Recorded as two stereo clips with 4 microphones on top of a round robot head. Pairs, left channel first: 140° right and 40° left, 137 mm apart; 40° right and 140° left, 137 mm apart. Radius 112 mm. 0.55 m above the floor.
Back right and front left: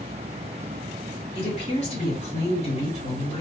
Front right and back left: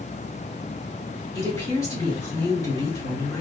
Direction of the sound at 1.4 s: 105° right.